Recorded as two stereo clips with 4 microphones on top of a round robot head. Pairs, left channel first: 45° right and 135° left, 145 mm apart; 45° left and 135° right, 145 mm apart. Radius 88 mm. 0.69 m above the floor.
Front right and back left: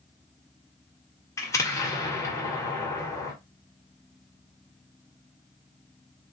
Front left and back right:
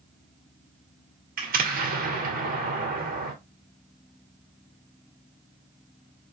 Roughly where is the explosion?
Behind right.